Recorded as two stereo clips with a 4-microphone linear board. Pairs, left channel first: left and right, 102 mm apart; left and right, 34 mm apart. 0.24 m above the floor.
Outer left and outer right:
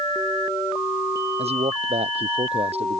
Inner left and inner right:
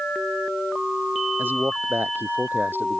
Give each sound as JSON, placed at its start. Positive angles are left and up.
{"t": 1.4, "sound": "a man speaking", "side_deg": -80}